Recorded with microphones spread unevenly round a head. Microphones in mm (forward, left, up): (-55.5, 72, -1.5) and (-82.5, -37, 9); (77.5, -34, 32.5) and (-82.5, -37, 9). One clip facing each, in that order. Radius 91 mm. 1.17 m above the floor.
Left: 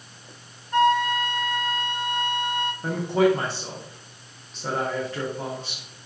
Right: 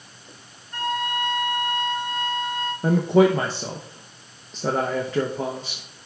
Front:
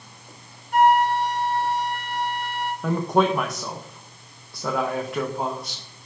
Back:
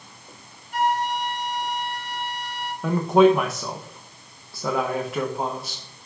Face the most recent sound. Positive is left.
turn(degrees=-95)